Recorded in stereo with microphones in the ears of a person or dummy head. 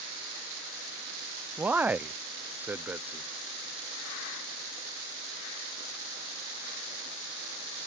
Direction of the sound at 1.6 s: Centre (ahead or behind).